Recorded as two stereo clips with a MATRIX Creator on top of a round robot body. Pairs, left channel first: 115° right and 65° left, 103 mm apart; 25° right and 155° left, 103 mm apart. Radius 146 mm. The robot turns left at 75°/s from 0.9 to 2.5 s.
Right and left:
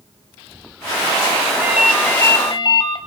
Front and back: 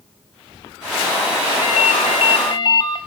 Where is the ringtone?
Straight ahead, 1.7 m; by 3.0 s 65° right, 1.7 m.